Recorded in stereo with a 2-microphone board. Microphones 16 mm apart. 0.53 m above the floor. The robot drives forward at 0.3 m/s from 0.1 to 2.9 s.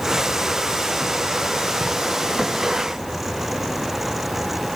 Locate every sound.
Only background noise.